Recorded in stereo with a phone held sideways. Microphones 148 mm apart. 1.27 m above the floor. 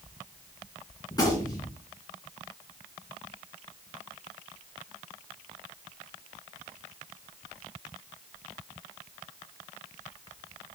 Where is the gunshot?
30° left (ahead or behind), 3 m.